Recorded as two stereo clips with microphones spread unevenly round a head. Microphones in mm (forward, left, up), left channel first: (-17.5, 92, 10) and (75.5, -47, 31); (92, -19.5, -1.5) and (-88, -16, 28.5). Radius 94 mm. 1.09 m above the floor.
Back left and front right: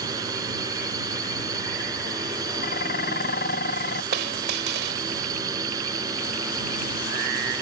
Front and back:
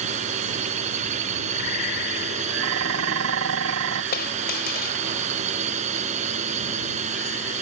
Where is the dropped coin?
40° right.